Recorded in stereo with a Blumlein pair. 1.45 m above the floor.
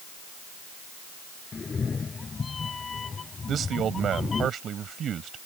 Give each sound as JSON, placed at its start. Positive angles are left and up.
{"t": 1.5, "sound": "a cat meowing", "azimuth_deg": 15}
{"t": 3.5, "sound": "a man speaking", "azimuth_deg": -25}